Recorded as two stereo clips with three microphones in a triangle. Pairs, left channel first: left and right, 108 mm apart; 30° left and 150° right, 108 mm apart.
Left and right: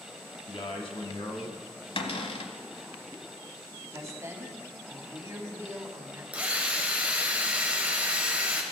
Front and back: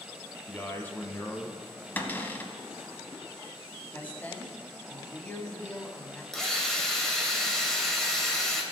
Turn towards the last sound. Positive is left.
turn(degrees=-45)